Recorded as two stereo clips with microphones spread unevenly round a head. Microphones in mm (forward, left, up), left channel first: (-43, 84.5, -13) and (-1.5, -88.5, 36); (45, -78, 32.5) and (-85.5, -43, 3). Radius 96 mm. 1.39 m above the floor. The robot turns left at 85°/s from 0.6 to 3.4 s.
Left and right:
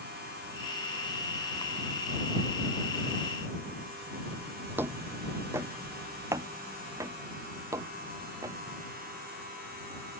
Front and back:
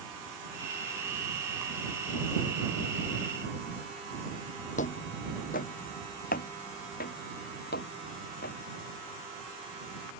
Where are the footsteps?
5° right.